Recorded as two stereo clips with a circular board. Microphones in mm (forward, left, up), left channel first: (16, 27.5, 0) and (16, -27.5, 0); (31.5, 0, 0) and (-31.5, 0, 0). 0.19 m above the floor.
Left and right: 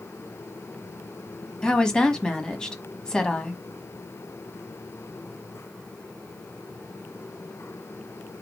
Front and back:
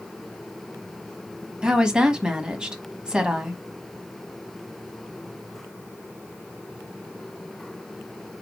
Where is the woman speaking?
135° left, 1.1 m.